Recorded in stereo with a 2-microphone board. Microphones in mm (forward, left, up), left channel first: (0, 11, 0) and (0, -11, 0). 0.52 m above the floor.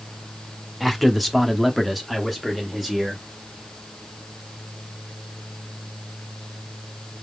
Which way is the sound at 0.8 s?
Centre (ahead or behind).